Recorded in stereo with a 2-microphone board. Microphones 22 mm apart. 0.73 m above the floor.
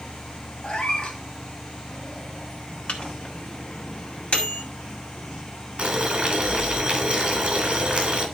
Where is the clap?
I don't hear a clap.